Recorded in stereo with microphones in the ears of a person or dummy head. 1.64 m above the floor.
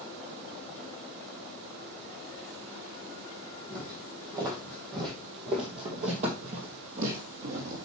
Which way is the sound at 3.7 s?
20° right (ahead or behind).